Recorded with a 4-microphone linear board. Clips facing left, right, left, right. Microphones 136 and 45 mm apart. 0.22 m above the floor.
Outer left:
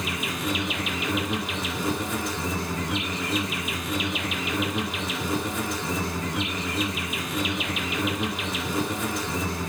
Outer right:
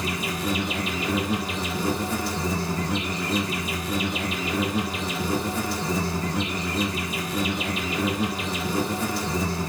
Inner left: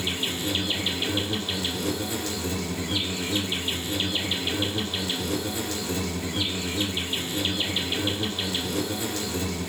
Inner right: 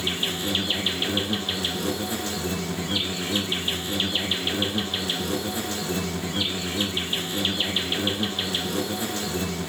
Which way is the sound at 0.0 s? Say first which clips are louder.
Outer right 2 dB, inner right 1 dB; 35° right (ahead or behind).